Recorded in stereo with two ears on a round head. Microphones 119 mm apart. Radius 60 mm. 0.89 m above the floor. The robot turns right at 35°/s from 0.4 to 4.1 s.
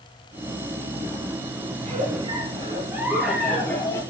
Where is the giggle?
55° right, 7 m; by 4.0 s 20° left, 7 m.